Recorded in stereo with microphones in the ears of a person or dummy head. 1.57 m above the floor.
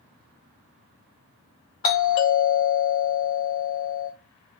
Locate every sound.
1.8 s a doorbell: 40° left (ahead or behind), 0.8 m